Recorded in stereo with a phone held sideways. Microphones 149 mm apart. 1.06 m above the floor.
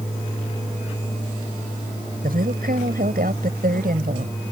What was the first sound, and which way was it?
A woman speaking, 85° right.